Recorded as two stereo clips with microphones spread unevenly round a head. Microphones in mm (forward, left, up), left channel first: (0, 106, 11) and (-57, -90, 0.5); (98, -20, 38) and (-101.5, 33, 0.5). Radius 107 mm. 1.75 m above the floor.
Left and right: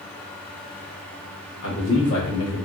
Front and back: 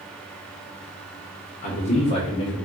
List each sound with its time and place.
1.6 s a man speaking: 40° left, 1.5 m; by 2.6 s 55° left, 1.0 m